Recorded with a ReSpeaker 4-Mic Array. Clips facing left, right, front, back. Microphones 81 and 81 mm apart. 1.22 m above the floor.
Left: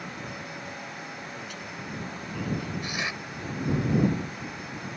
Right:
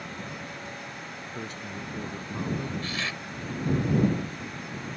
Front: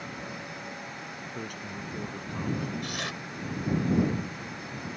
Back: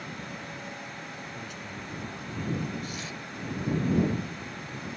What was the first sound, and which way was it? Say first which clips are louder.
A man speaking: right 2 dB, front 2 dB; 35° right.